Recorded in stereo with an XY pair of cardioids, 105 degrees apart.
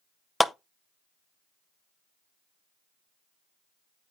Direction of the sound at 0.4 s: 10° left.